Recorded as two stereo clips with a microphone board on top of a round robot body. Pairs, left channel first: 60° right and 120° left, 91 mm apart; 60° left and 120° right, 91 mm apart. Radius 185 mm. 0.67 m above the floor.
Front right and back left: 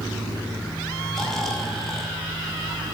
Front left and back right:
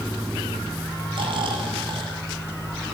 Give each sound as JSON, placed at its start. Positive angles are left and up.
{"t": 1.1, "sound": "snoring", "azimuth_deg": -150, "distance_m": 2.5}